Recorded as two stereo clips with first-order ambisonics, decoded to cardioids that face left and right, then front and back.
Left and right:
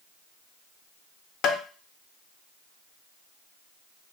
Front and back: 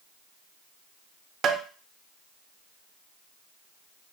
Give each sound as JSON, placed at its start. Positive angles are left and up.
{"t": 1.4, "sound": "tapping", "azimuth_deg": 130, "distance_m": 0.6}